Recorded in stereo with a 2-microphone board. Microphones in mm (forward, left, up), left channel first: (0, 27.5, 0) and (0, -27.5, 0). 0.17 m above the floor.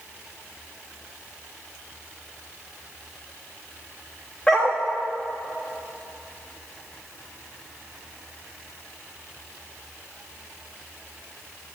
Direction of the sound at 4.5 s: 20° left (ahead or behind).